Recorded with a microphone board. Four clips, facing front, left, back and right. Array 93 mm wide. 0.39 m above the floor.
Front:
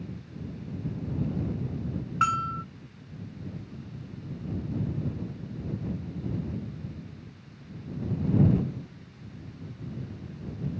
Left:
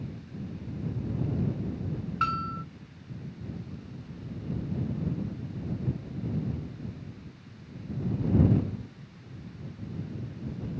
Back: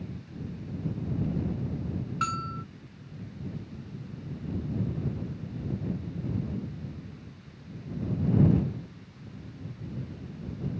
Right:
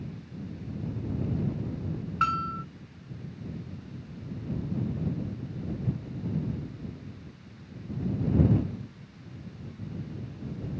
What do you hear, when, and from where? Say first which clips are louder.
2.2 s a bell: right 2 dB, front 6 dB; 20° right